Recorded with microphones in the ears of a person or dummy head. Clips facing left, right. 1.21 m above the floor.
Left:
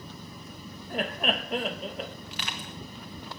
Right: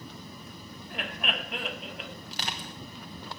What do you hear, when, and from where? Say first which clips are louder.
0.9 s laughter: left 7 dB; 40° left (ahead or behind), 0.8 m
2.3 s crushing: even; 35° right (ahead or behind), 1.0 m